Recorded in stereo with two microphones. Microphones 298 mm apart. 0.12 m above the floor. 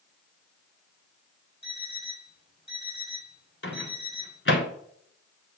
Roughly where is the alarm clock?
Left.